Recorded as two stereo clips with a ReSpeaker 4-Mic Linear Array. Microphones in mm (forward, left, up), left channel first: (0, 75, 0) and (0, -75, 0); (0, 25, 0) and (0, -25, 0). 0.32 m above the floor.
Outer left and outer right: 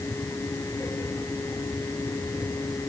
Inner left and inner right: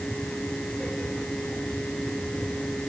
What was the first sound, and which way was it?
Only background noise.